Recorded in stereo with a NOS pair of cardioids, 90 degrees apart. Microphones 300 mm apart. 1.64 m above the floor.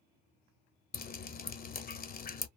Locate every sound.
0.9 s dripping: 30° left, 0.5 m